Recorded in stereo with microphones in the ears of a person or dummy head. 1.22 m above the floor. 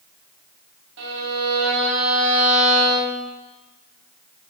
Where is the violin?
60° right (ahead or behind), 1.8 m.